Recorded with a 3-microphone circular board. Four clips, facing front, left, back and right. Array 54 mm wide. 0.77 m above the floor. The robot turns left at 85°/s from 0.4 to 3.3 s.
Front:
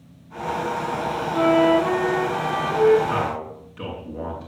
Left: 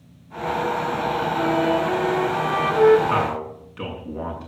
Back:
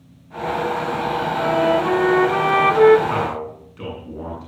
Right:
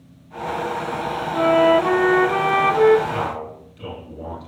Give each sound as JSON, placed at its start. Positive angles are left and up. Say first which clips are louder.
{"t": 1.3, "sound": "a flute", "louder": "right 8 dB, front 2 dB", "azimuth_deg": -45, "distance_m": 0.9}
{"t": 3.1, "sound": "a man speaking", "louder": "left 3 dB, back 2 dB", "azimuth_deg": 110, "distance_m": 8.5}